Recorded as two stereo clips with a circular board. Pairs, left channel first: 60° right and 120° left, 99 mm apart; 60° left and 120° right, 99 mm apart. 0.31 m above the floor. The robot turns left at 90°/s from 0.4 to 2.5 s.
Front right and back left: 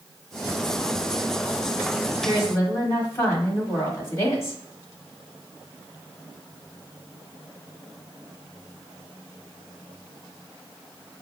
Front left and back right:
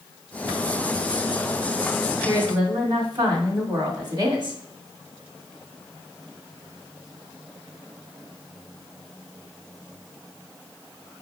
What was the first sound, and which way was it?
A woman speaking, 85° right.